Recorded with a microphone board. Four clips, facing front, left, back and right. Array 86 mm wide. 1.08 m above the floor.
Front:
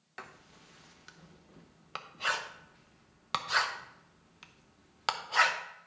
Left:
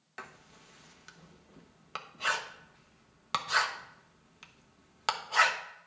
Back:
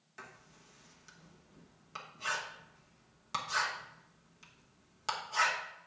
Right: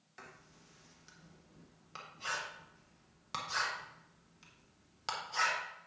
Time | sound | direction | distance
0.2 | writing | 45° left | 1.0 m